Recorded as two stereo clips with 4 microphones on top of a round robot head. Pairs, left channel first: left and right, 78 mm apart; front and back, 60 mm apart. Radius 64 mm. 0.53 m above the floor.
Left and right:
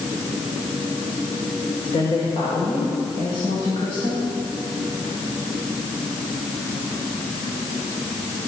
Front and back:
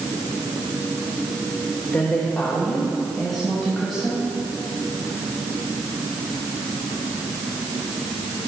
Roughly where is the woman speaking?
Ahead left.